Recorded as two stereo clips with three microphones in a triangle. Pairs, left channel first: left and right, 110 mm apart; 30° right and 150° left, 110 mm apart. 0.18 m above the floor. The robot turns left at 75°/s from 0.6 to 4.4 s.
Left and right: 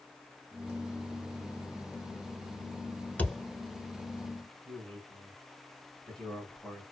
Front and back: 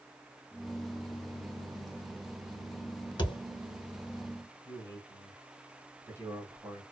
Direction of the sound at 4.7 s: 170° left.